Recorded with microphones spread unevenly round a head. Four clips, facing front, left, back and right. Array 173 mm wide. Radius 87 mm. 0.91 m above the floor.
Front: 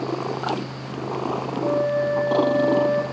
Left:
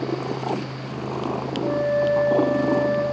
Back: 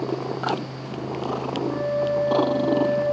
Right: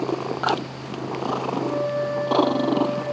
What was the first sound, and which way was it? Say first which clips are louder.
A flute: left 8 dB, front 4 dB; 5° right.